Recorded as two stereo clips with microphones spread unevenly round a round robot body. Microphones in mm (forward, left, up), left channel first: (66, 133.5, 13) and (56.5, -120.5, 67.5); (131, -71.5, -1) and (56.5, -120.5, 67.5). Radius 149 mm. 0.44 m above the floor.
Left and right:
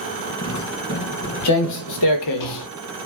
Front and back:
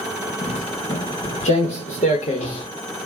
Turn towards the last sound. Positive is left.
turn(degrees=120)